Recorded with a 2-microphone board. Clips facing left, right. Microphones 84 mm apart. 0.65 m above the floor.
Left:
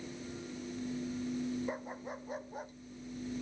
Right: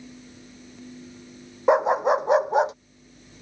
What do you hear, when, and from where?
1.7 s a dog barking: 85° right; by 2.8 s 90° right